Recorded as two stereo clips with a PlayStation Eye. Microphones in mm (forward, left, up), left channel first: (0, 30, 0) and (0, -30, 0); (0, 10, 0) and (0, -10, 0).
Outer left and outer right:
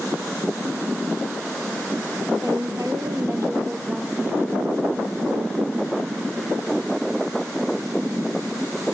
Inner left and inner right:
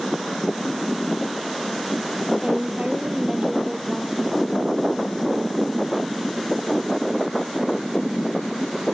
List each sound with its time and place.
2.4 s a woman speaking: 65° right (ahead or behind), 5 m; by 4.4 s 45° right (ahead or behind), 5.5 m